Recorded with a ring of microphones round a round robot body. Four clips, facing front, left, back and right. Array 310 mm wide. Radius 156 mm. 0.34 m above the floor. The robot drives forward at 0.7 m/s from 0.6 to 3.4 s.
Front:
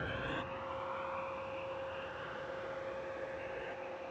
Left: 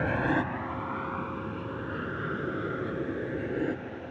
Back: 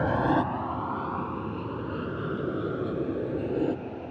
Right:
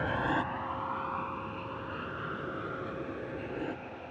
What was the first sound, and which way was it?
An aircraft, 155° left.